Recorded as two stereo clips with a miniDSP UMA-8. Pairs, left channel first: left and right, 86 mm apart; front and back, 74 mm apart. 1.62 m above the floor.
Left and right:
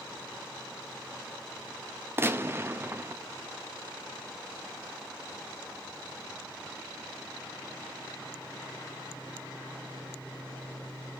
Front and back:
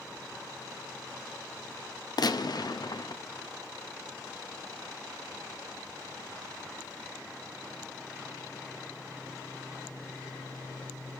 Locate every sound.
2.2 s a gunshot: 30° right, 0.6 m